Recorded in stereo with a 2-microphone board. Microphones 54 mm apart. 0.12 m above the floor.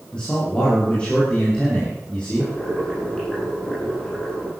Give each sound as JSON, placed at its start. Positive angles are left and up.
{"t": 0.1, "sound": "a man speaking", "side_deg": 20, "distance_m": 7.0}
{"t": 2.4, "sound": "boiling", "side_deg": 20, "distance_m": 6.5}